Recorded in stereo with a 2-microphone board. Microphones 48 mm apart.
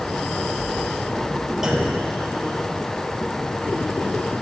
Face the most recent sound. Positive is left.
turn(degrees=-10)  # may be behind; listen again after turning